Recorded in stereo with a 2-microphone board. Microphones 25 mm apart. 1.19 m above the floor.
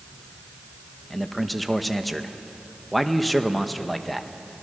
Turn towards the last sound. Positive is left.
turn(degrees=0)  # may be behind; listen again after turning